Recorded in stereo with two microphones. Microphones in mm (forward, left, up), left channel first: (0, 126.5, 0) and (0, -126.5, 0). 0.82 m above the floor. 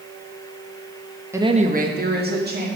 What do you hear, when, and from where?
1.3 s a woman speaking: 10° right (ahead or behind), 0.7 m; by 2.7 s 40° right (ahead or behind), 2 m